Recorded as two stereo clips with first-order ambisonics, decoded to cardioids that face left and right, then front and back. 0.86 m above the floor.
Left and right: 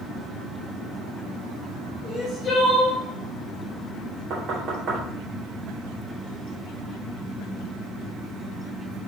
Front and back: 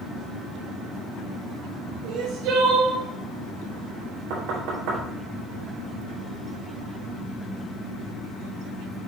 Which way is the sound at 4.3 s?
150° right.